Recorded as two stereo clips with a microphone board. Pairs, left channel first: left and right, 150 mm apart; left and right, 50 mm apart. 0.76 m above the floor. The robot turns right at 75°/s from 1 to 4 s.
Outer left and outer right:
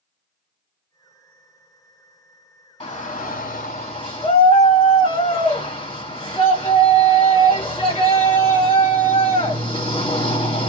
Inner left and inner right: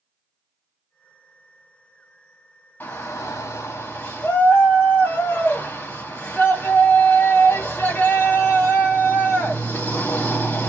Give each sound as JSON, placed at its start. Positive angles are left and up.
{"t": 2.8, "sound": "a shout", "azimuth_deg": 40, "distance_m": 1.7}